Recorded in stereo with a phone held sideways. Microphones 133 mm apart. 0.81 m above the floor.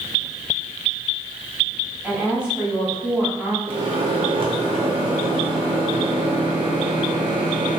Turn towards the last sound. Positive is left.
turn(degrees=-40)  # may be behind; listen again after turning